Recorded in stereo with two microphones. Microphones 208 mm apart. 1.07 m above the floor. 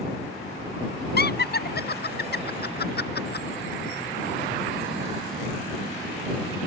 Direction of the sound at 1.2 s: 50° left (ahead or behind).